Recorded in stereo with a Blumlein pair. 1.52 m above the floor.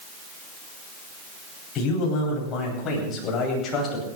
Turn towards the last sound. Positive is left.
turn(degrees=25)